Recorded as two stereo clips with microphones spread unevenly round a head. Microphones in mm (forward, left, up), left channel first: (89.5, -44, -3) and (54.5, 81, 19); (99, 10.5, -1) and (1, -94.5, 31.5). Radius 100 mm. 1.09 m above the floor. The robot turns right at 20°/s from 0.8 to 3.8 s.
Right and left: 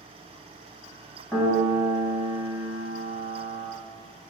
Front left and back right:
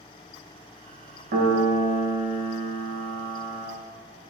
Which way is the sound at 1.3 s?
150° right.